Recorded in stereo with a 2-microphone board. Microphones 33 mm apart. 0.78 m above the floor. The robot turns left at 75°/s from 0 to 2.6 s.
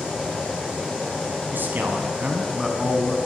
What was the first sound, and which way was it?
A man speaking, 95° right.